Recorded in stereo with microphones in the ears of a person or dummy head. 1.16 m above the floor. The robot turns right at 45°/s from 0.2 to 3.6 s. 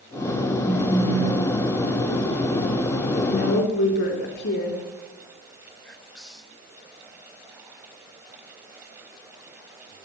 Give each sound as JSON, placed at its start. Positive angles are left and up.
{"t": 0.7, "sound": "a phone buzzing", "azimuth_deg": -175, "distance_m": 7.5}
{"t": 3.1, "sound": "a woman speaking", "side_deg": 40, "distance_m": 4.0}
{"t": 5.8, "sound": "whispering", "side_deg": 5, "distance_m": 2.5}